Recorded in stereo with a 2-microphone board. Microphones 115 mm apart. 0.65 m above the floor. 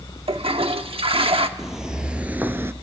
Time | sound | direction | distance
0.3 | a toilet flushing | 60° right (ahead or behind) | 0.9 m
1.6 | footsteps | 5° right (ahead or behind) | 1.2 m